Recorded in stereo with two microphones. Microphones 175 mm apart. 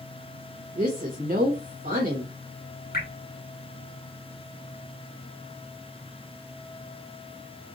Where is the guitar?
I don't hear a guitar.